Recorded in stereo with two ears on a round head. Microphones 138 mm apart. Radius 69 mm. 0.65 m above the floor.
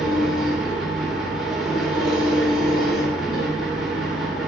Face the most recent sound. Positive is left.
turn(degrees=0)  # may be behind; listen again after turning